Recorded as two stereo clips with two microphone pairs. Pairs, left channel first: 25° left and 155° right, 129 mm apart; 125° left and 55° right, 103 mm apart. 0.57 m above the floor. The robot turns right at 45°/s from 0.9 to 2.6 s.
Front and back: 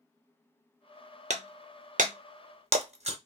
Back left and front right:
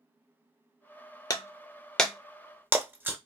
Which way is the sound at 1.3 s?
Straight behind.